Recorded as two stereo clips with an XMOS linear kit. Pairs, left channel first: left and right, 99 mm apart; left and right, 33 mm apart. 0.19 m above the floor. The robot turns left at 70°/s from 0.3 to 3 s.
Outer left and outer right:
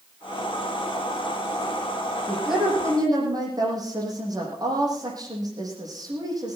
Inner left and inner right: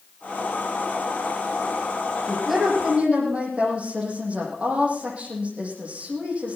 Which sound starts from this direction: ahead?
A woman speaking, at 2.3 s.